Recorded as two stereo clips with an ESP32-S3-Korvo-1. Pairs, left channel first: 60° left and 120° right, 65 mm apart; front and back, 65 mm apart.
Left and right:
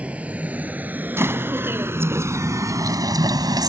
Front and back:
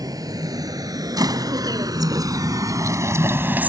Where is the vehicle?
170° left; by 3.7 s 115° right.